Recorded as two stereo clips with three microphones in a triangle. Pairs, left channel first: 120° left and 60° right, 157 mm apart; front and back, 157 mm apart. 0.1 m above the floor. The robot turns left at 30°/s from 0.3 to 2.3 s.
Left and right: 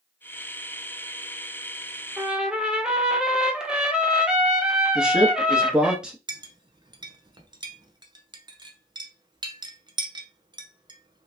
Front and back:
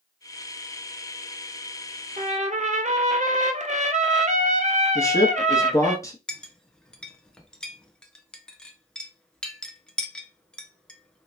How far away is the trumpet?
About 0.6 m.